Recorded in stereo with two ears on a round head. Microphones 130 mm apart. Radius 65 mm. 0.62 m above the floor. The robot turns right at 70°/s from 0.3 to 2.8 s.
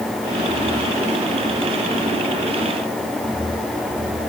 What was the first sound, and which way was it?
Only background noise.